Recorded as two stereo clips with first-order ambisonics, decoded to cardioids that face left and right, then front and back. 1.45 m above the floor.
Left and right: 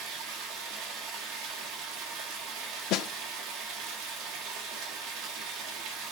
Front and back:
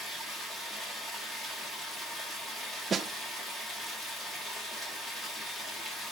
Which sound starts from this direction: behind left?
A snare drum, at 2.9 s.